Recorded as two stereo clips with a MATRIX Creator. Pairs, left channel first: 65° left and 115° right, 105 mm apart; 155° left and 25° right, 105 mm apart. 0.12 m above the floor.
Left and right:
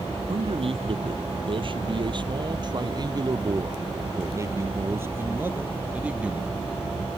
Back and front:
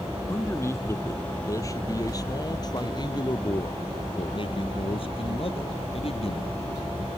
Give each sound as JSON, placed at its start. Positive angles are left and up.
{"t": 0.3, "sound": "a man speaking", "azimuth_deg": -135}